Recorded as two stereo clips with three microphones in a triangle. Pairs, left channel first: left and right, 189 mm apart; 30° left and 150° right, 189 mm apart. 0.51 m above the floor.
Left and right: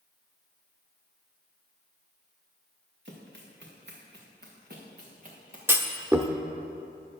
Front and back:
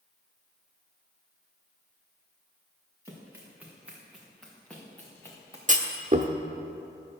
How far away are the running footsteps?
About 3.5 m.